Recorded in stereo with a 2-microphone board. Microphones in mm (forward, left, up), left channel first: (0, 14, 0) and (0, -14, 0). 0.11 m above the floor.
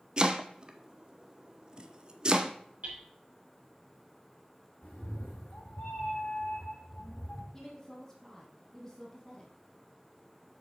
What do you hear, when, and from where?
0.2 s chopping: 30° right (ahead or behind), 0.7 m
2.8 s hammering: 60° right (ahead or behind), 3.5 m
4.8 s a cat meowing: 70° left (ahead or behind), 4 m
7.5 s a woman speaking: 5° left (ahead or behind), 1.8 m